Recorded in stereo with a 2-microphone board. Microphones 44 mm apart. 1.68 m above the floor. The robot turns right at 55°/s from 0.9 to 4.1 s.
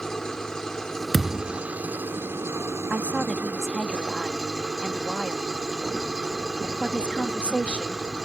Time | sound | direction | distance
0.0 | an engine running | 165° left | ?
1.1 | a thud | 5° left (ahead or behind) | ?
2.9 | a woman speaking | 40° right | ?